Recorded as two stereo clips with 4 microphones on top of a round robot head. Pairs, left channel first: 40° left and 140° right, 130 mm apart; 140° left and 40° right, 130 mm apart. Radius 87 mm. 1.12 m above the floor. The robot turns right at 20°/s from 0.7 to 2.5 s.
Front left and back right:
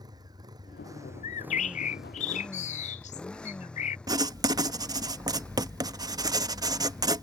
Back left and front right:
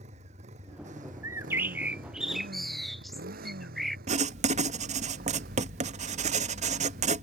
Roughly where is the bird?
Ahead left.